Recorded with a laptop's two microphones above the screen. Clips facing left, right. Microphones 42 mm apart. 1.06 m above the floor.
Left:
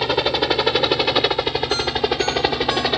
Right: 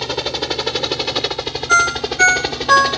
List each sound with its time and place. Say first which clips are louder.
0.0 s a helicopter: left 3 dB; 15° left (ahead or behind)
1.7 s a ringtone: right 6 dB; 65° right (ahead or behind)